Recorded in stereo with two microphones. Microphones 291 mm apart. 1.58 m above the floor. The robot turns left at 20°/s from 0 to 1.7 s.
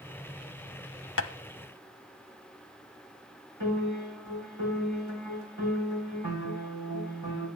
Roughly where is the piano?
Right.